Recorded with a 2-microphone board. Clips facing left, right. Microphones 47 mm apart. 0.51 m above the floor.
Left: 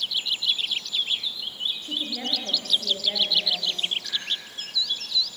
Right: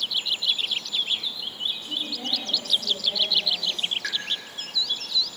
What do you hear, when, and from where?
1.8 s a woman speaking: 55° left (ahead or behind), 8.5 m; by 3.9 s 40° left (ahead or behind), 8.5 m
4.0 s a pop: 70° right (ahead or behind), 6 m